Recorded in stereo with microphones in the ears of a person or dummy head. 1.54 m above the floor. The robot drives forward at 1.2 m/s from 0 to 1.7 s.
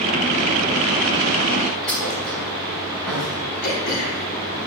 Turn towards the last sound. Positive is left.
turn(degrees=50)  # may be behind; listen again after turning